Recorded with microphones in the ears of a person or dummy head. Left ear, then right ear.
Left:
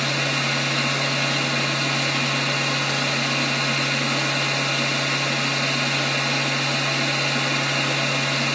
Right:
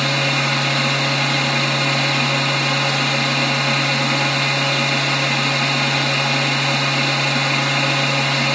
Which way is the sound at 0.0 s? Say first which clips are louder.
Right 4 dB; 15° right (ahead or behind).